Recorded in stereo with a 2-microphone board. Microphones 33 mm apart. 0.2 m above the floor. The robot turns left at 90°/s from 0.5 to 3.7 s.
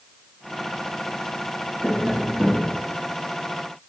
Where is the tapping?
20° left, 3 m; by 2.7 s 60° right, 3 m.